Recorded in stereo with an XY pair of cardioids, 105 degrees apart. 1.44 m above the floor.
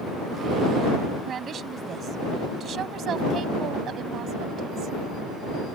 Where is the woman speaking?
50° right; by 5.0 s 65° right.